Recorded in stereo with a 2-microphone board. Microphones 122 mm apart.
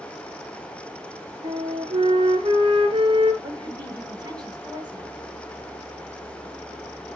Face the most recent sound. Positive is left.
turn(degrees=-35)  # may be behind; listen again after turning